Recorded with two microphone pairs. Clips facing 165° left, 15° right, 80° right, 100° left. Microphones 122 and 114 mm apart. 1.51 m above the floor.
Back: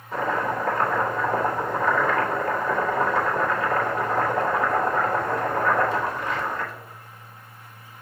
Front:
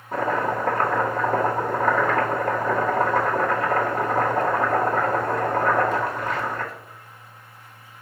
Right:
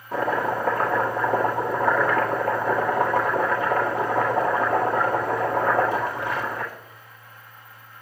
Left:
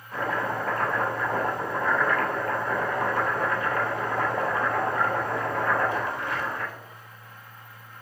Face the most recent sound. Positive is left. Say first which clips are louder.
# front 2 dB, right 5 dB
turn(degrees=-65)